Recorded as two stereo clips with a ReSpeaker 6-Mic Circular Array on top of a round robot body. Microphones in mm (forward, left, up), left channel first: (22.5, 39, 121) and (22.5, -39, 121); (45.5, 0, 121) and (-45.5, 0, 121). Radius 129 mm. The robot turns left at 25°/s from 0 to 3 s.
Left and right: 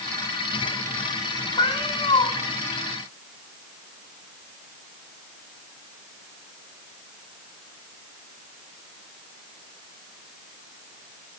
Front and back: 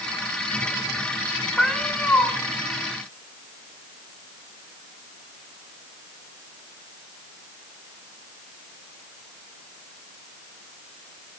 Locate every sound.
1.6 s a cat meowing: 85° left, 1.3 m; by 2.3 s 70° left, 1.3 m